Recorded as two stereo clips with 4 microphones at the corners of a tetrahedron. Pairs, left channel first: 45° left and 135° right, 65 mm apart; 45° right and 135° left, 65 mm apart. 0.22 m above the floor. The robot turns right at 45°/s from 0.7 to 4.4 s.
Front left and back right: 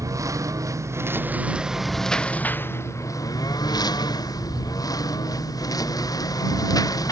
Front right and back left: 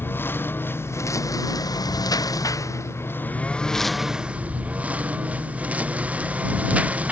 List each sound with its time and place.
0.0 s a lawn mower: 100° right; by 7.1 s 65° left